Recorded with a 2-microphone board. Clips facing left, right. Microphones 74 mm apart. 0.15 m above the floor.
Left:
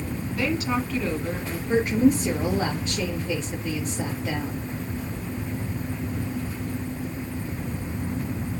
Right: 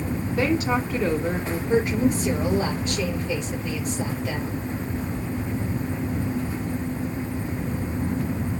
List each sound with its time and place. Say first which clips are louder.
0.3 s a woman speaking: right 3 dB; 30° right (ahead or behind), 1.3 m
1.7 s a woman speaking: left 2 dB; 30° left (ahead or behind), 3 m